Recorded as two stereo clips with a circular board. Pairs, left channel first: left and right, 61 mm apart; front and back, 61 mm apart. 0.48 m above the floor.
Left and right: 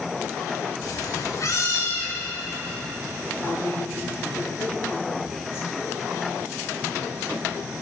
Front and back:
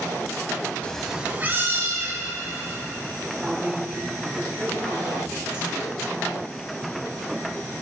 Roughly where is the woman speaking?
Left.